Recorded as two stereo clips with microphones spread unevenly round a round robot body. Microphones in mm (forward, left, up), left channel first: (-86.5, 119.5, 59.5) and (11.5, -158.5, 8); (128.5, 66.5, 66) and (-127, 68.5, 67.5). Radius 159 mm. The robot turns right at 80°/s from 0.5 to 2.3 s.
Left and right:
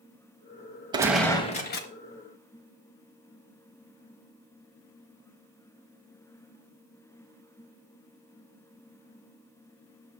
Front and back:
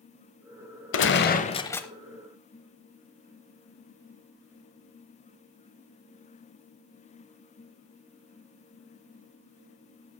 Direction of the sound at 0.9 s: 10° left.